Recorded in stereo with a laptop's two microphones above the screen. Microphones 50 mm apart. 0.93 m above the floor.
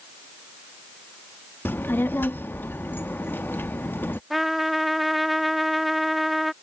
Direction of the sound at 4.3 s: 5° right (ahead or behind).